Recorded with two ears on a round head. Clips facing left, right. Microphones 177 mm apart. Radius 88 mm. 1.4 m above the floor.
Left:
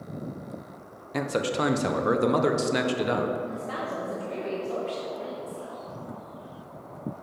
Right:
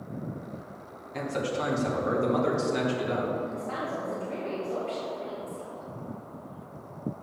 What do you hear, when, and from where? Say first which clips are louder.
1.1 s a man speaking: left 3 dB; 70° left (ahead or behind), 0.9 m
3.5 s a woman speaking: even; 40° left (ahead or behind), 1.4 m